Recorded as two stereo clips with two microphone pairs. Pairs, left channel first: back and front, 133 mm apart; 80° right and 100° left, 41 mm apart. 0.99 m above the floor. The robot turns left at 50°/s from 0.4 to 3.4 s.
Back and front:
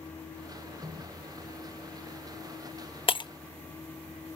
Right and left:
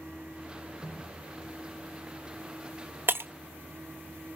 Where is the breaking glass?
130° left, 0.6 m; by 3.3 s 120° left, 0.6 m.